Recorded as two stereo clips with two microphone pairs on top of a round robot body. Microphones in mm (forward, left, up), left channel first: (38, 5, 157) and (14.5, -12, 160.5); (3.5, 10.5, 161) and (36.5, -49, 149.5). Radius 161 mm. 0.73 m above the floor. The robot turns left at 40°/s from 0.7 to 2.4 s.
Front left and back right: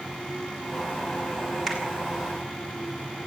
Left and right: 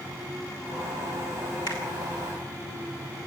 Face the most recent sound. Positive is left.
turn(degrees=105)